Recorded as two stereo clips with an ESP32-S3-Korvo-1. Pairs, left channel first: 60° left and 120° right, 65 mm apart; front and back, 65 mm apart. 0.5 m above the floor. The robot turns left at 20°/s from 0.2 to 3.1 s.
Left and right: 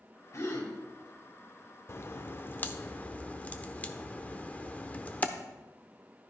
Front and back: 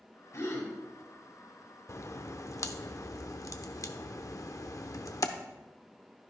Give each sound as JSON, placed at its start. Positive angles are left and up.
{"t": 0.3, "sound": "a gasp", "azimuth_deg": 35, "distance_m": 2.5}
{"t": 1.9, "sound": "a crack", "azimuth_deg": 25, "distance_m": 0.7}